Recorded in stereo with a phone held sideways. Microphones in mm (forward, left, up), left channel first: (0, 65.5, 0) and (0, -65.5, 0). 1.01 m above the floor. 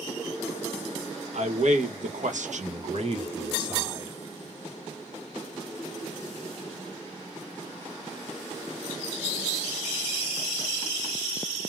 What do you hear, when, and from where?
1.3 s a man speaking: 60° right (ahead or behind), 1.0 m; by 4.1 s 25° right (ahead or behind), 1.2 m